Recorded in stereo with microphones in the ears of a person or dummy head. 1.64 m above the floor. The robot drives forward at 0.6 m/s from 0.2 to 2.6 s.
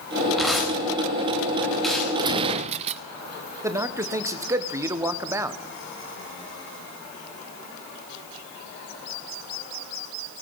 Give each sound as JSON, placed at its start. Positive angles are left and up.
{"t": 0.4, "sound": "tearing paper", "side_deg": 0, "distance_m": 3.5}
{"t": 2.2, "sound": "a gunshot", "side_deg": -25, "distance_m": 0.8}
{"t": 3.6, "sound": "a man speaking", "side_deg": -10, "distance_m": 1.1}